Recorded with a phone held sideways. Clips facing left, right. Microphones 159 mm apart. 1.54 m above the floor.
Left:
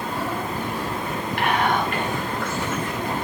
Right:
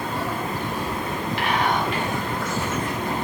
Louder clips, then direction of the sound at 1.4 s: Left 2 dB; 55° left (ahead or behind).